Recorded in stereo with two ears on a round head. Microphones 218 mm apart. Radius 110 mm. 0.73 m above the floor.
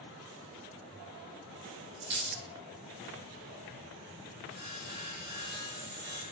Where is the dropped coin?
45° right (ahead or behind), 1.0 m.